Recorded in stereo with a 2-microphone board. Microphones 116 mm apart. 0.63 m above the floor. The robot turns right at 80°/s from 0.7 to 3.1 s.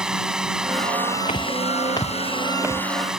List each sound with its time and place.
0.0 s a drone: 5° right; by 3.2 s 175° right
1.3 s footsteps: 85° left; by 3.2 s 55° right (ahead or behind)